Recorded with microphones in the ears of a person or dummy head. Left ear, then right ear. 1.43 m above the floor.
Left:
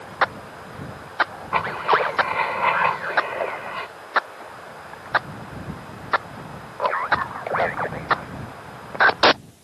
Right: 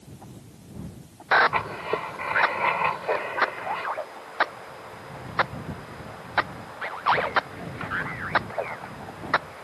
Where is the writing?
5° left (ahead or behind).